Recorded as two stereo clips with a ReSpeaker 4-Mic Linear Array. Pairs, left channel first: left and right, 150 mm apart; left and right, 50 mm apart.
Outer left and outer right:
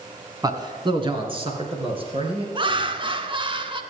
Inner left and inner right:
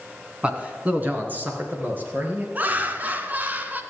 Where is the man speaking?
25° right (ahead or behind), 1.6 m; by 2.5 s 40° right (ahead or behind), 3.5 m.